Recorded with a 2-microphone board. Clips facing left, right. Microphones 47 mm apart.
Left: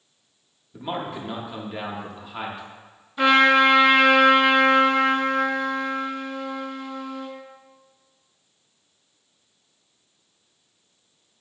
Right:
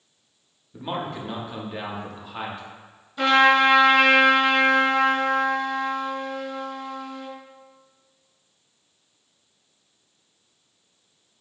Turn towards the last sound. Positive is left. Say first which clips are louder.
# left 1 dB
turn(degrees=10)  # may be behind; listen again after turning